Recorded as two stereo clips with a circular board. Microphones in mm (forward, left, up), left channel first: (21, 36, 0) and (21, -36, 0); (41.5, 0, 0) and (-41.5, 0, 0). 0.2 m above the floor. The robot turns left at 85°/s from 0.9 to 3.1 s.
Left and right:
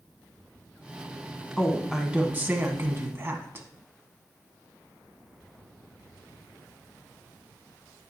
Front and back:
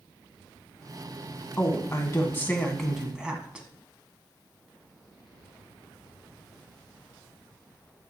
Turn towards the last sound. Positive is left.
turn(degrees=-110)